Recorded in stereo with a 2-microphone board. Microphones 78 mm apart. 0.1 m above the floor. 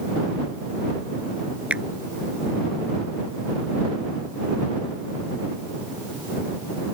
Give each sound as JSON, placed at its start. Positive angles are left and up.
{"t": 1.7, "sound": "a finger snap", "side_deg": -15}